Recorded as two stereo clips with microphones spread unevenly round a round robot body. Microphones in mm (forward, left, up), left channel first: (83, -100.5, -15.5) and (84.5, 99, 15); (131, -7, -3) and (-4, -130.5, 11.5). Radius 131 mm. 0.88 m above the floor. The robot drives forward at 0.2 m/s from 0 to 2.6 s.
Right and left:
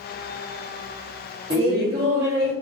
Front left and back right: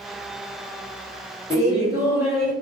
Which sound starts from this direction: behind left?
Laughter, at 1.5 s.